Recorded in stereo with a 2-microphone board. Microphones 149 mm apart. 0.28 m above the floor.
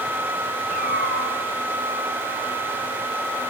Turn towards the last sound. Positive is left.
turn(degrees=75)  # may be behind; listen again after turning